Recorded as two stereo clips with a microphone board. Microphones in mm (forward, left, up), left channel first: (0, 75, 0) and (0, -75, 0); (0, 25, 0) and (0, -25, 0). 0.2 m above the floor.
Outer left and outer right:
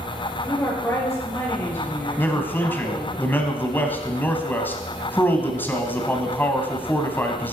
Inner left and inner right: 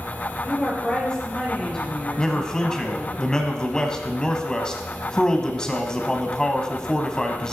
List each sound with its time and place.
0.4 s a woman speaking: 15° left (ahead or behind), 3.5 m
2.2 s a man speaking: 15° left (ahead or behind), 1.0 m